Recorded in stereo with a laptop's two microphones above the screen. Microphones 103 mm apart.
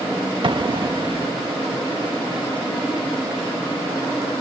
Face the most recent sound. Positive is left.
turn(degrees=-50)  # may be behind; listen again after turning